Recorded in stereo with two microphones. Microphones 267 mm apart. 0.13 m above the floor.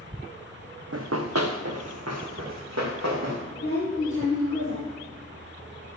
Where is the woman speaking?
45° left (ahead or behind), 2.5 m.